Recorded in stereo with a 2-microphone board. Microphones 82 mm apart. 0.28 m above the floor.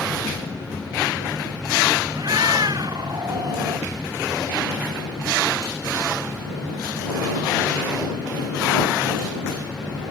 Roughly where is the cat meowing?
Right.